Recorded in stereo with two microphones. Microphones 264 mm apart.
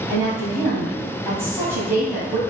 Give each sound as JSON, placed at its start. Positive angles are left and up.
{"t": 0.1, "sound": "a woman speaking", "side_deg": -10, "distance_m": 1.8}